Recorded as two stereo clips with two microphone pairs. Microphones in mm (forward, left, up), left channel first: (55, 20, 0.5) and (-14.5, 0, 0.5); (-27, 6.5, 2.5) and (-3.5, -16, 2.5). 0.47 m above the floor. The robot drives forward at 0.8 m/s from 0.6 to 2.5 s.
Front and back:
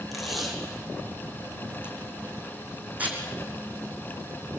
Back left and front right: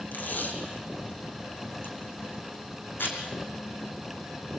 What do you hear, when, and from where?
0.1 s tape being pulled: 110° left, 3.5 m; by 3.2 s 130° left, 4 m